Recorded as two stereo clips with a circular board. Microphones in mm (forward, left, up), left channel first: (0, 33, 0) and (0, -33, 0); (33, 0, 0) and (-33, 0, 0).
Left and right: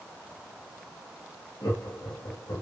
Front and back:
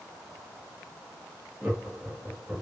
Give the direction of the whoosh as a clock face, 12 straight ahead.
No whoosh in this recording.